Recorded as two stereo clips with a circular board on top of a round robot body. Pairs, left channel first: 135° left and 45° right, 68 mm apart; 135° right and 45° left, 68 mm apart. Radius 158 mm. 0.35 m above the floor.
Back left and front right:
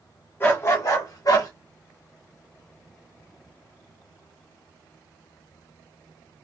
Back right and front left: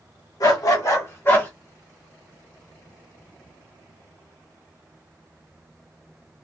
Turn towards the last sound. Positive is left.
turn(degrees=160)